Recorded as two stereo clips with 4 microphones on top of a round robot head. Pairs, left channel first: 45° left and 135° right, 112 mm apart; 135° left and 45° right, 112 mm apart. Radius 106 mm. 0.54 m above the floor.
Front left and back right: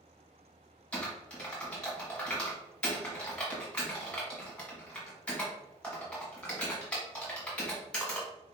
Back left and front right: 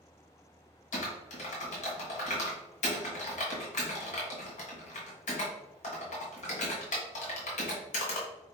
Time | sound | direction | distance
0.9 | typing on a keyboard | 125° left | 1.5 m